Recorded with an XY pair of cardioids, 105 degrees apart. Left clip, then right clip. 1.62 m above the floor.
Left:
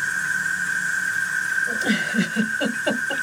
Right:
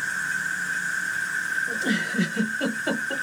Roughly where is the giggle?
Ahead left.